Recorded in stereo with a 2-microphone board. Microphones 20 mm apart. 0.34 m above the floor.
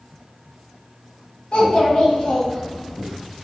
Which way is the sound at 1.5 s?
60° left (ahead or behind).